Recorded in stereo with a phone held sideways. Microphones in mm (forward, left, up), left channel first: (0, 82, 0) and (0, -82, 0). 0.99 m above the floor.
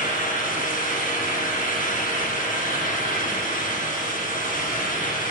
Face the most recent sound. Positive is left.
turn(degrees=55)  # may be behind; listen again after turning